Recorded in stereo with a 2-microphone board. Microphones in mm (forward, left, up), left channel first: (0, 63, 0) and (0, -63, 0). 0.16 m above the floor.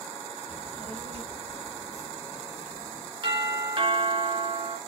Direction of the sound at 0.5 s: 65° right (ahead or behind).